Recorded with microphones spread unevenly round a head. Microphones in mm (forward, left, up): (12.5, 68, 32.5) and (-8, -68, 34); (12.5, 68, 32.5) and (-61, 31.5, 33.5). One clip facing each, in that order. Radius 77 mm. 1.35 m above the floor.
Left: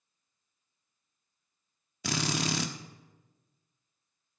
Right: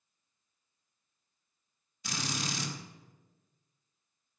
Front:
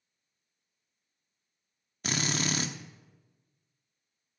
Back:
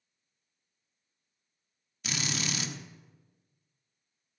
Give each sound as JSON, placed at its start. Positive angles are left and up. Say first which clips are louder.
{"t": 2.0, "sound": "a drill", "louder": "left 6 dB, front 4 dB", "azimuth_deg": 60, "distance_m": 1.1}